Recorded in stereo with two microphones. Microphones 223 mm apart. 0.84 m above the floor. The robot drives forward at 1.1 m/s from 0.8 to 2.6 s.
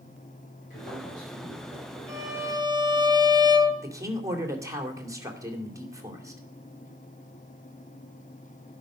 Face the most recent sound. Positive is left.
turn(degrees=-15)  # may be behind; listen again after turning